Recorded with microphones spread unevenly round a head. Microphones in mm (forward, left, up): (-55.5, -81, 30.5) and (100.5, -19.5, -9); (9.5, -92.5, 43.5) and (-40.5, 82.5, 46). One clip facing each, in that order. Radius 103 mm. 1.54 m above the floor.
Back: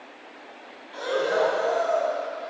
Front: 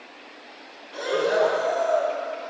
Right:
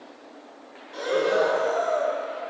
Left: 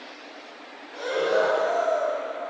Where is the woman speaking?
I don't hear a woman speaking.